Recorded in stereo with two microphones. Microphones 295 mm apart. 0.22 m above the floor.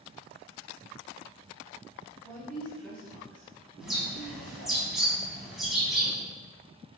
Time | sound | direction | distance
2.2 | a woman speaking | 5° left (ahead or behind) | 1.1 m
3.8 | a bird | centre (ahead or behind) | 1.7 m